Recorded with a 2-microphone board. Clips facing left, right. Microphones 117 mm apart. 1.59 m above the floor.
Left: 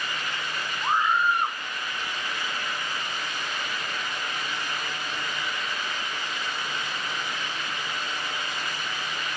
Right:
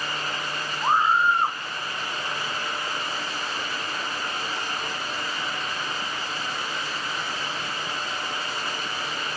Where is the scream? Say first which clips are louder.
Right 3 dB; 30° right (ahead or behind).